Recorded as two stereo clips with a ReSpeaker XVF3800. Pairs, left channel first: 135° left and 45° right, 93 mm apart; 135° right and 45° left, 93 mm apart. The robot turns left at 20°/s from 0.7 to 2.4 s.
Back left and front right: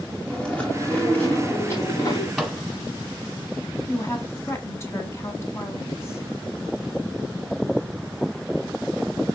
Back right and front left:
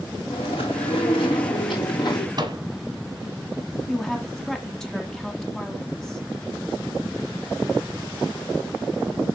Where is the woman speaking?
145° left, 1.4 m.